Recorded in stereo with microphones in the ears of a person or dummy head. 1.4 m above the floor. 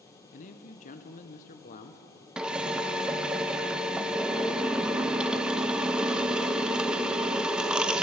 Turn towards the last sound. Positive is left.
turn(degrees=-10)  # may be behind; listen again after turning